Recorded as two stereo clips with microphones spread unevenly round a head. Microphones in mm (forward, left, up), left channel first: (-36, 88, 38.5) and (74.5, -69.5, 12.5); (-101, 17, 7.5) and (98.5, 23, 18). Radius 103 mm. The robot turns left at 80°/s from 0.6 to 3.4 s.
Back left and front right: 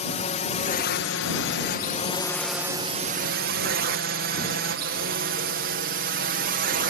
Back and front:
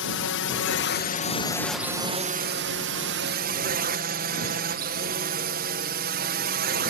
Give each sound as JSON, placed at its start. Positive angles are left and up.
{"t": 0.0, "sound": "a drone", "azimuth_deg": 180}